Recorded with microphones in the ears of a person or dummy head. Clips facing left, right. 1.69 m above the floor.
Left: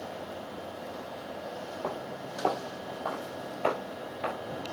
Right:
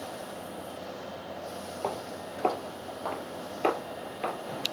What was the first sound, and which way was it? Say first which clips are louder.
Footsteps: right 3 dB; 40° right (ahead or behind).